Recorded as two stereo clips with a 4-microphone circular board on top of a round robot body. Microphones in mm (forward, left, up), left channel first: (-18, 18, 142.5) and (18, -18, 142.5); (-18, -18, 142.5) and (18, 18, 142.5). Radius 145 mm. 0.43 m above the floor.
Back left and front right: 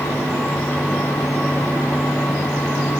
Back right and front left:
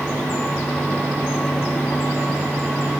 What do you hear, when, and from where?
Only background noise.